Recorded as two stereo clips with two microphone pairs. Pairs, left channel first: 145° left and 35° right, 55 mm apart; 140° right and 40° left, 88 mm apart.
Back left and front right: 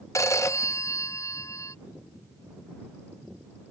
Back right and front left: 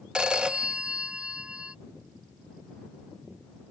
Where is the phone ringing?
120° left.